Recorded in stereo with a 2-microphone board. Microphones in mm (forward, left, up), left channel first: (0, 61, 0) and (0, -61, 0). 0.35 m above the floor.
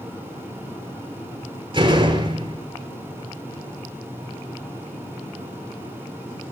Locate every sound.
1.7 s a door slam: 40° right (ahead or behind), 3.5 m